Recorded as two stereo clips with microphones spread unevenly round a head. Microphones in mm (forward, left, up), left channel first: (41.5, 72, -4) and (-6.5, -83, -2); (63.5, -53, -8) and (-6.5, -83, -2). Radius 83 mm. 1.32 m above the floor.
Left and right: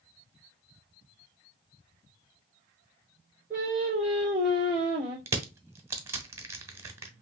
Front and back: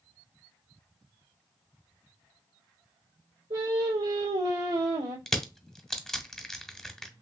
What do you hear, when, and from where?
3.5 s singing: 170° left, 2.5 m
5.3 s crushing: 60° right, 1.1 m